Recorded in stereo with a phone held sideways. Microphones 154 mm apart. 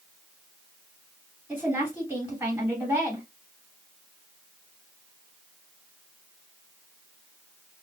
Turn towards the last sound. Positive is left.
turn(degrees=-10)  # may be behind; listen again after turning